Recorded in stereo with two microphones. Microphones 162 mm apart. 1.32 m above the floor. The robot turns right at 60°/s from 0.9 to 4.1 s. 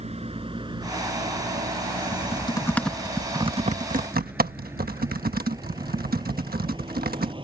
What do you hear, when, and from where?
0.0 s a vehicle: 40° right (ahead or behind); by 7.4 s 30° right (ahead or behind)
2.1 s typing on a keyboard: 50° left (ahead or behind); by 7.3 s 65° right (ahead or behind)